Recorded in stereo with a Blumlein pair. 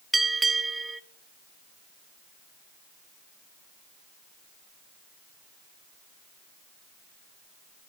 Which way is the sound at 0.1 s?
10° right.